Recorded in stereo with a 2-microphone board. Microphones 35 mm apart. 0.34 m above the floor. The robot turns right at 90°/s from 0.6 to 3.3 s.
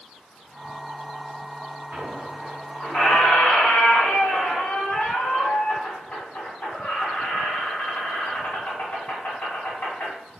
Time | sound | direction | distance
1.9 | a squeak | 65° right | 1.3 m